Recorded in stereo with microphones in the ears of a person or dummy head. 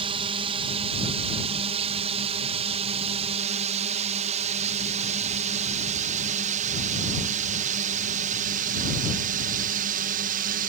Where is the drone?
30° right (ahead or behind); by 10.7 s 45° right (ahead or behind).